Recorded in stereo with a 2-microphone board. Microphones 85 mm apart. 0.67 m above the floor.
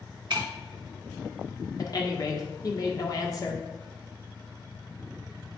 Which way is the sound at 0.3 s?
65° right (ahead or behind).